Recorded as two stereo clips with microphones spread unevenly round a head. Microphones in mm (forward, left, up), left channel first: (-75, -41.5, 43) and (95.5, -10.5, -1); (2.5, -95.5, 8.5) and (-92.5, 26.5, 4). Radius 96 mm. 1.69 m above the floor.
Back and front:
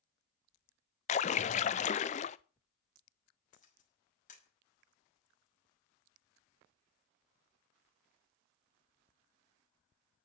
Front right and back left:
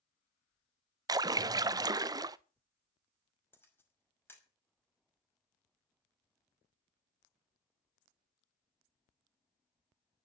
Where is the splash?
170° right, 0.5 m.